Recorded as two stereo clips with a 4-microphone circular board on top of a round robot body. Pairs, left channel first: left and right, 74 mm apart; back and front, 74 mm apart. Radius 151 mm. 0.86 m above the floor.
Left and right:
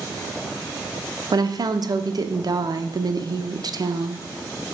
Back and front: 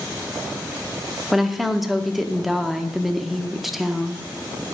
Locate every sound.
1.3 s a woman speaking: 90° right, 0.8 m